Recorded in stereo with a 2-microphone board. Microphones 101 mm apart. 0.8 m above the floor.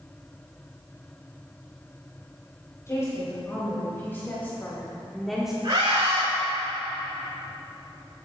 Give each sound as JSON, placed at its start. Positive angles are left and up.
{"t": 2.9, "sound": "a woman speaking", "side_deg": 30, "distance_m": 4.5}
{"t": 5.6, "sound": "a scream", "side_deg": -50, "distance_m": 4.0}